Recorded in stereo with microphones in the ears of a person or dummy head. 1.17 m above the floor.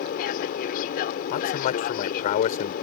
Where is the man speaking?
45° left (ahead or behind).